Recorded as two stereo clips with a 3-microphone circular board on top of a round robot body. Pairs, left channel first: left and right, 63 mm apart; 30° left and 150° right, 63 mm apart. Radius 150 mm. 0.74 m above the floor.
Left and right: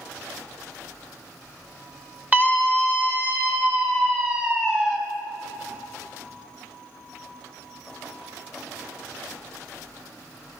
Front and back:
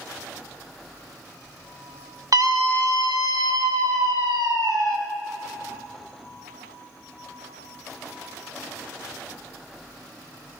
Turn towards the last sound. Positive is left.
turn(degrees=-155)